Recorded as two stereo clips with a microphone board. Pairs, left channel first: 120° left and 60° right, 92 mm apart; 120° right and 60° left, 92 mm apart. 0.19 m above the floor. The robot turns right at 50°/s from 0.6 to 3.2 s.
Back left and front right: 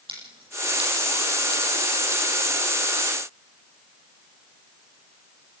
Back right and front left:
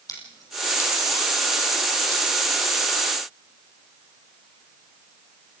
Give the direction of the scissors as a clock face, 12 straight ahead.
2 o'clock.